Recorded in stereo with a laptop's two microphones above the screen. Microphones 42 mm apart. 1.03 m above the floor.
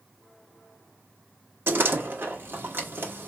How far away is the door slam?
About 1.1 m.